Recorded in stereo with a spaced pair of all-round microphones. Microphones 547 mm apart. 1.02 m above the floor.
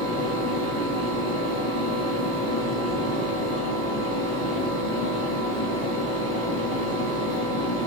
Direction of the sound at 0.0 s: 15° left (ahead or behind).